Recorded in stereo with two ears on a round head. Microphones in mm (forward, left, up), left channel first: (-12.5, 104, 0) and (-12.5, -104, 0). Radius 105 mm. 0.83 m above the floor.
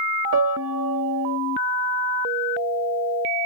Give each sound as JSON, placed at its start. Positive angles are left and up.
{"t": 0.3, "sound": "a piano", "side_deg": -65}